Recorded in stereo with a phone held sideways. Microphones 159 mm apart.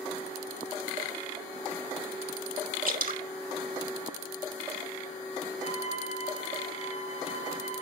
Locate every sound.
2.9 s dripping: 70° right (ahead or behind), 1.4 m
5.6 s a violin: 45° left (ahead or behind), 5 m